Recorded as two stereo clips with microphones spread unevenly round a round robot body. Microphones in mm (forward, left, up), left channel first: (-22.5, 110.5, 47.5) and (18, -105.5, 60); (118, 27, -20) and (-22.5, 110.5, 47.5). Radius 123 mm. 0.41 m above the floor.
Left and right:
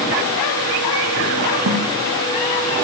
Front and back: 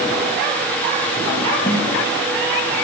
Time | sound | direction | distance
1.7 | a snare drum | 100° right | 5.5 m